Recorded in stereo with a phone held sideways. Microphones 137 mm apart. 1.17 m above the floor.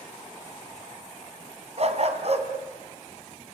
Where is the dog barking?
50° right (ahead or behind), 2 m.